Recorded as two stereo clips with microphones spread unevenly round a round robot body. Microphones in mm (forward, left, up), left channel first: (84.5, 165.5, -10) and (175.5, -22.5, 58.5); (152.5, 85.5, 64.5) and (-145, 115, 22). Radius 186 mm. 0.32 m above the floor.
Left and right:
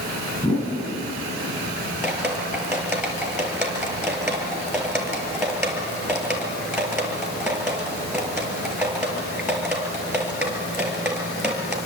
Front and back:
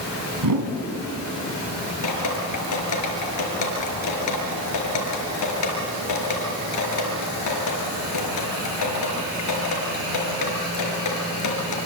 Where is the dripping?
20° left, 4.5 m.